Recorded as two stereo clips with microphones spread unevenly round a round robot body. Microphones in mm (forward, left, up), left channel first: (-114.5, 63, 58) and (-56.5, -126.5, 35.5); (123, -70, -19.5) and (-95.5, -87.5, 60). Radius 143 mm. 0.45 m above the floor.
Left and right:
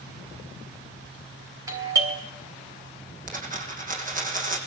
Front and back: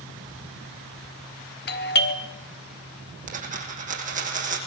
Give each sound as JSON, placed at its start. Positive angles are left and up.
{"t": 1.7, "sound": "a doorbell", "azimuth_deg": 0, "distance_m": 3.0}
{"t": 3.3, "sound": "a dropped coin", "azimuth_deg": -120, "distance_m": 7.0}